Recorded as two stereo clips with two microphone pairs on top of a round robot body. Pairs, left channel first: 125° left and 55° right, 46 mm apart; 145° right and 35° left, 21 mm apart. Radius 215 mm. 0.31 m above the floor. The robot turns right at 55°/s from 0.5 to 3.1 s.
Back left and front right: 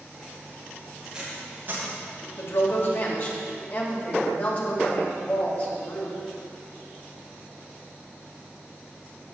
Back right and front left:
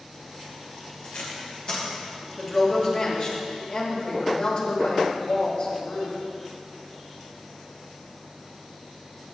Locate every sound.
1.0 s tape being pulled: 140° right, 2.5 m; by 1.9 s 95° right, 2.5 m
2.4 s a woman speaking: 135° left, 2.5 m; by 6.2 s straight behind, 2.5 m